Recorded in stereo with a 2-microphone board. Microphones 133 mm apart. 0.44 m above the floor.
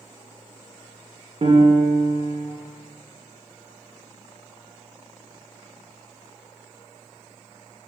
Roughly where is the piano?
Right.